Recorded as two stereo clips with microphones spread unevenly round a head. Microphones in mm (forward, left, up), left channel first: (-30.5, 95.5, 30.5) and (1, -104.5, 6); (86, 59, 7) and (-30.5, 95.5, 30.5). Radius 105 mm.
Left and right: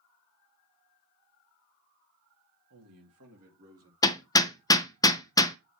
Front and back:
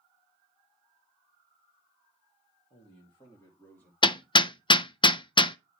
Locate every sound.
2.7 s a man speaking: 70° right, 2.5 m; by 3.9 s 100° right, 3.5 m
4.0 s hammering: 35° left, 0.6 m